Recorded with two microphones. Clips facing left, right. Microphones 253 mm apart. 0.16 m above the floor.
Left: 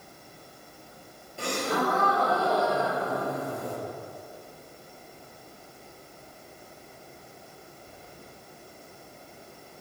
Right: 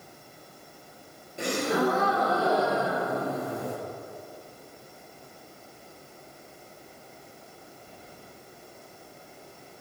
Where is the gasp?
20° right (ahead or behind), 3.5 m.